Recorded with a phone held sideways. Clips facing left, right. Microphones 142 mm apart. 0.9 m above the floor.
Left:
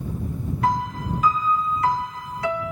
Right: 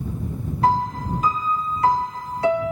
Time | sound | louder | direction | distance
0.6 | a piano | right 4 dB | 30° right (ahead or behind) | ?